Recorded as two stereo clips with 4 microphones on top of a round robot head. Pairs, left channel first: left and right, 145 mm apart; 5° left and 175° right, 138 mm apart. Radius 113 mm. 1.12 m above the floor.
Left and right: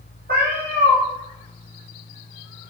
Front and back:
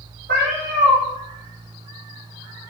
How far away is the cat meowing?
About 0.6 m.